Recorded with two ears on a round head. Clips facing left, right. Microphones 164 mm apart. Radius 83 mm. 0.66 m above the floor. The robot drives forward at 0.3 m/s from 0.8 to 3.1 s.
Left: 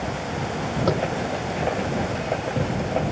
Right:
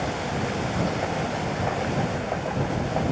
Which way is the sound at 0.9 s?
80° left.